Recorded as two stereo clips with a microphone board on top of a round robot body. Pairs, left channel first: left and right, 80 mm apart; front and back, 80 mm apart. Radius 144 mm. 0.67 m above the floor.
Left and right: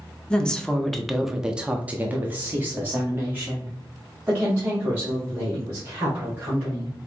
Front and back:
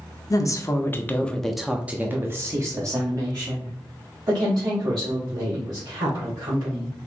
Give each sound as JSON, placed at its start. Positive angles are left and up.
{"t": 0.3, "sound": "a woman speaking", "azimuth_deg": 15, "distance_m": 0.9}